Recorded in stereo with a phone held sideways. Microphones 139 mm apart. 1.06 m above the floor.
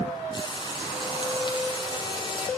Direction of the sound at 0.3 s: 35° left (ahead or behind).